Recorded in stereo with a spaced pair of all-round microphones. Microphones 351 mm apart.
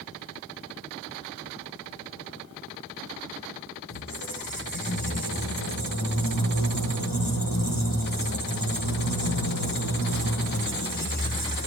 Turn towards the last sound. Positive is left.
turn(degrees=70)  # may be behind; listen again after turning